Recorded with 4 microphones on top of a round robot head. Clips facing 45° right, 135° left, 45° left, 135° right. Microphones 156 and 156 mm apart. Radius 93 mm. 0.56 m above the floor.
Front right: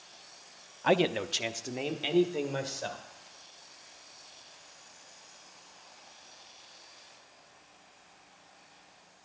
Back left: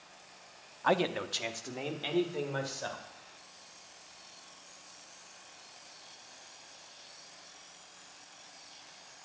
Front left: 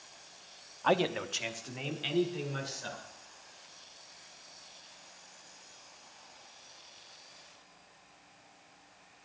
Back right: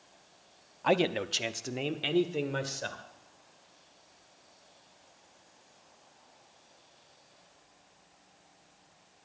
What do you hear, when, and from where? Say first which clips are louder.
0.8 s a man speaking: front right 3 dB, back right 2 dB; 60° right, 0.6 m; by 3.0 s 115° right, 2 m